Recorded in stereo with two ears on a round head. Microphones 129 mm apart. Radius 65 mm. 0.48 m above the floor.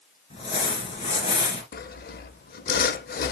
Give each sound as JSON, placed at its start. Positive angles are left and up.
{"t": 0.3, "sound": "crumpling", "side_deg": 40, "distance_m": 2.5}
{"t": 1.7, "sound": "sawing", "side_deg": 70, "distance_m": 0.7}